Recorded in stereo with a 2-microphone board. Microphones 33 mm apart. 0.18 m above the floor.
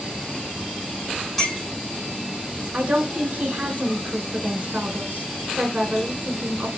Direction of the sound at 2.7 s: 45° right (ahead or behind).